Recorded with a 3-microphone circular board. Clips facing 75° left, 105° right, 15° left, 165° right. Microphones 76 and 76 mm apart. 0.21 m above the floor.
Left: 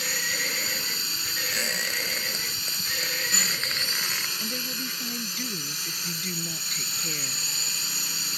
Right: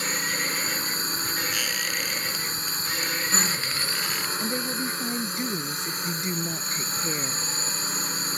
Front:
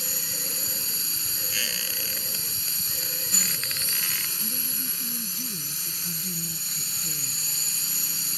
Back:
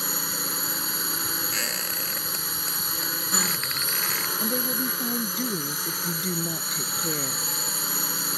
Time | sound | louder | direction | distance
0.0 | a drone | right 2 dB, back 7 dB | 150° right | ?
1.5 | a squeak | even, back 3 dB | 135° left | ?
4.4 | a woman speaking | right 6 dB, back 11 dB | 170° right | ?